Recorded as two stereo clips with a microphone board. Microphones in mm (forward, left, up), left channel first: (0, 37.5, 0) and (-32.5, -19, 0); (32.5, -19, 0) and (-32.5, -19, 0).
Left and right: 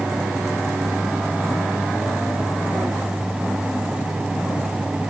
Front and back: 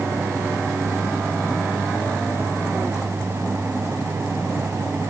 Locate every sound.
Only background noise.